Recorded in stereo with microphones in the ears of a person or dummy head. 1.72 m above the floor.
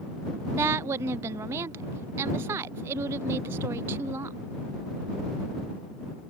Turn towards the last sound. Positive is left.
turn(degrees=-15)  # may be behind; listen again after turning